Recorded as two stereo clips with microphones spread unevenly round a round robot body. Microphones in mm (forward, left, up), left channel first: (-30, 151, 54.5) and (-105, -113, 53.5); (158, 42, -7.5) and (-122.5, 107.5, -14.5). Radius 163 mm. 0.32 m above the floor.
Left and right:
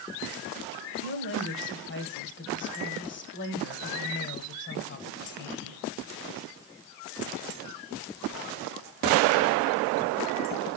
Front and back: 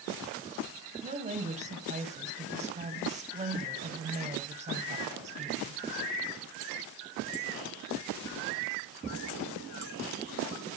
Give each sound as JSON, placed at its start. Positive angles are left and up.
{"t": 1.0, "sound": "a woman speaking", "azimuth_deg": 110, "distance_m": 2.0}